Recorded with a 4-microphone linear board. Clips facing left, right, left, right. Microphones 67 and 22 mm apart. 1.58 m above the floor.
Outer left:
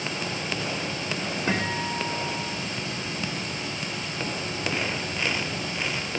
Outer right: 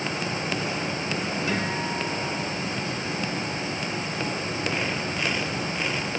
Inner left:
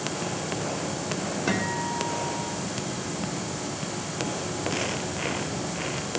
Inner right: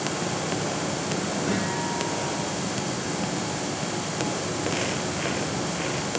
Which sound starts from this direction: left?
A guitar, at 1.5 s.